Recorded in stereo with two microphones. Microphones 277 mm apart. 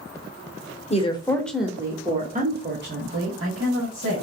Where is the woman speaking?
25° left (ahead or behind), 0.8 m; by 4.2 s 60° right (ahead or behind), 1.5 m.